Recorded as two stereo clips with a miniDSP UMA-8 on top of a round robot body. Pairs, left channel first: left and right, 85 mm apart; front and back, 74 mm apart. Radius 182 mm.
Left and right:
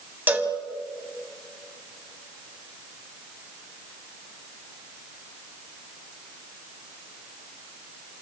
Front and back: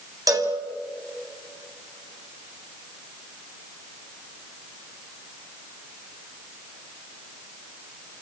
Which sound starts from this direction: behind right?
A cowbell, at 0.3 s.